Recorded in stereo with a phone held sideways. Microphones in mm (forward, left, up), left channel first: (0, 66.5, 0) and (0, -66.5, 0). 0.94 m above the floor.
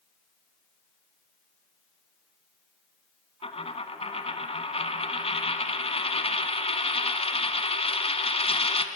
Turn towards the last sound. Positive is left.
turn(degrees=45)  # may be behind; listen again after turning